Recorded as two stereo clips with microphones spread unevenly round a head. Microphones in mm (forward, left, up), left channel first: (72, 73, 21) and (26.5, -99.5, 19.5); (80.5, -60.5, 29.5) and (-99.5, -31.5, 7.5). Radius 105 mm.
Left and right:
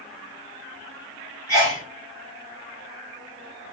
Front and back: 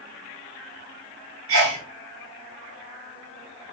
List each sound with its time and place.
1.5 s a sneeze: 150° left, 0.9 m